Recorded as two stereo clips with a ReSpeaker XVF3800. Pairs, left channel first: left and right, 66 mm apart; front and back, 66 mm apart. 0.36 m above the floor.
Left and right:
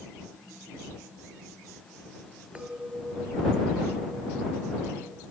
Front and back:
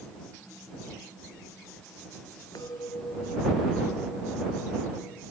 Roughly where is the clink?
Ahead.